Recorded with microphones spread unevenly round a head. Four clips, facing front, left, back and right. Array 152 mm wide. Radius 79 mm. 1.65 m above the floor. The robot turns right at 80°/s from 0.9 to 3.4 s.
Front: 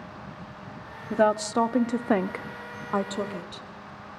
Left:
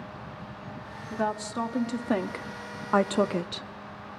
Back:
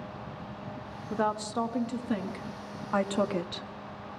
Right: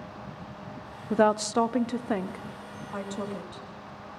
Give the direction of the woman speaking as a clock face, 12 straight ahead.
3 o'clock.